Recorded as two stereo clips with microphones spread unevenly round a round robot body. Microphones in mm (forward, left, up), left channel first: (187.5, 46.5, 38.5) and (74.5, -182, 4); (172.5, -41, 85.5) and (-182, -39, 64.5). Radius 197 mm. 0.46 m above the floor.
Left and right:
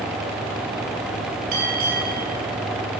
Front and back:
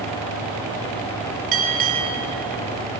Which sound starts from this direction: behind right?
A bell, at 1.5 s.